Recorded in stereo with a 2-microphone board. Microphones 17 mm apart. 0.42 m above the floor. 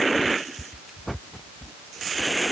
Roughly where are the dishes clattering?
I don't hear dishes clattering.